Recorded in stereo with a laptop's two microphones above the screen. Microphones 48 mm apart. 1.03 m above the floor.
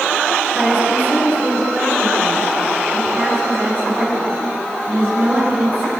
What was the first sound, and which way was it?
A woman speaking, 40° right (ahead or behind).